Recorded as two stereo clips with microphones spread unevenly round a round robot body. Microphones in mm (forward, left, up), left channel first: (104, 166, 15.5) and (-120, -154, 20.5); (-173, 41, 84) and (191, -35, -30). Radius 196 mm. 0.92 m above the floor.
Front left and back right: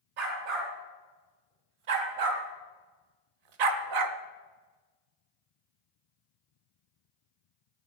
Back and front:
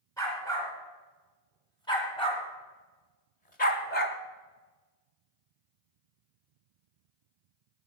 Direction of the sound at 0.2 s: 115° right.